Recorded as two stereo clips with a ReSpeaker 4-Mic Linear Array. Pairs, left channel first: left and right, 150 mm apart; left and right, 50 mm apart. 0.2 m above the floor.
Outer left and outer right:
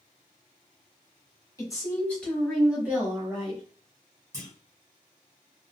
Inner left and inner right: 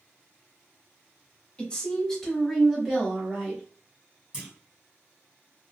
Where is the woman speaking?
25° left (ahead or behind), 1.1 m; by 3.6 s 30° right (ahead or behind), 1.3 m.